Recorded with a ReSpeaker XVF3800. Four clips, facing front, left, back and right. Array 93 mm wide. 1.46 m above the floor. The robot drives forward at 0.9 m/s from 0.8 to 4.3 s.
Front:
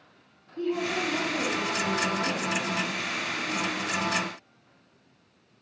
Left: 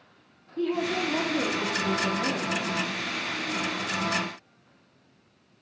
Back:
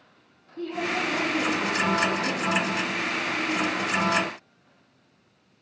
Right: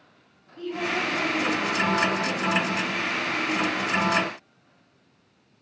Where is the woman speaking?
80° left, 3 m; by 3.0 s 115° left, 3.5 m.